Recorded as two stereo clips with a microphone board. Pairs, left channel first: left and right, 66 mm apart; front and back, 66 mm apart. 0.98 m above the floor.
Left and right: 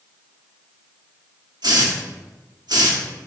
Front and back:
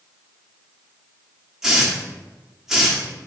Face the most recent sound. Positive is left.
turn(degrees=-95)